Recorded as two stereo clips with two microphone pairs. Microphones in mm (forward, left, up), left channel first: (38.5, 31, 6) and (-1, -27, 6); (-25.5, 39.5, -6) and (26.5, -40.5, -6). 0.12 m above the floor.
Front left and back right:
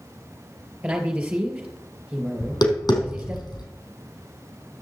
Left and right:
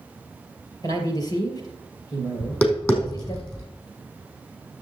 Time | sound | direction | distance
0.8 | a man speaking | 165° left | 3 m
2.4 | tapping | 55° left | 3.5 m